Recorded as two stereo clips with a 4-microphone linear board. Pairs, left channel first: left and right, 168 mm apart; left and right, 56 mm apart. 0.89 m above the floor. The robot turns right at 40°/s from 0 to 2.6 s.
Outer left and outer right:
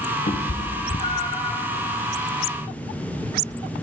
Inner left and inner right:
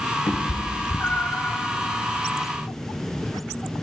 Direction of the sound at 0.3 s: 45° left (ahead or behind).